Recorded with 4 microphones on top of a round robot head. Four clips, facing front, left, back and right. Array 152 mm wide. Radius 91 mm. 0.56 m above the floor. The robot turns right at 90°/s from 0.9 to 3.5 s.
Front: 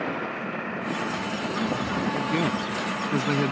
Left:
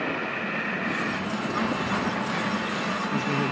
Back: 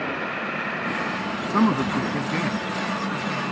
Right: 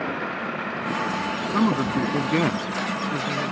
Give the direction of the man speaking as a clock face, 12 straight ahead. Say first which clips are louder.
Right 7 dB, back 9 dB; 5 o'clock.